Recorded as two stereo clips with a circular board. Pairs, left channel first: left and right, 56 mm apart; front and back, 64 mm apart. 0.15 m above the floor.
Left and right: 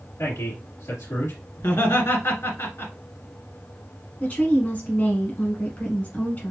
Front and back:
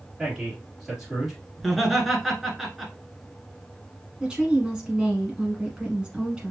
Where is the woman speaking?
115° left, 1.2 m.